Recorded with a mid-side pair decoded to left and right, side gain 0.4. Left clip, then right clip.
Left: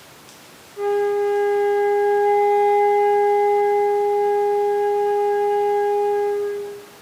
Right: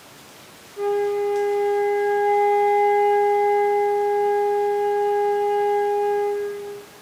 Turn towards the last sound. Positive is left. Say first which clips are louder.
# left 2 dB
turn(degrees=5)